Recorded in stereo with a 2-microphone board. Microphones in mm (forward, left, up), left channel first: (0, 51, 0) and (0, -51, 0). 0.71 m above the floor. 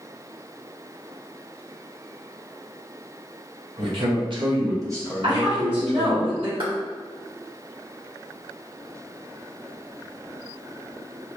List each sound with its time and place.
3.8 s a man speaking: 65° right (ahead or behind), 1.5 m; by 6.2 s 10° left (ahead or behind), 1.4 m
5.2 s a woman speaking: 60° right (ahead or behind), 2.0 m
6.6 s a clap: 60° right (ahead or behind), 1.8 m